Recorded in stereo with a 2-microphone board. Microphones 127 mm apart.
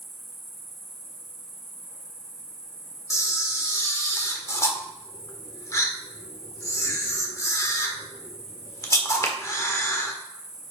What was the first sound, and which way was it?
An insect, 55° left (ahead or behind).